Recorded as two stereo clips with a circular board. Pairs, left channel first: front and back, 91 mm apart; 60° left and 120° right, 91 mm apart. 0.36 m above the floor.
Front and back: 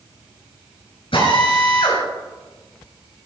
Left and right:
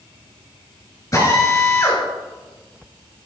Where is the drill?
5° left, 6 m.